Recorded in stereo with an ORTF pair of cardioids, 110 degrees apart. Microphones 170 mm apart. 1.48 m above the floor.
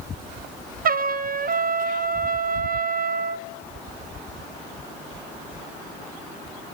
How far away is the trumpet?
About 0.6 m.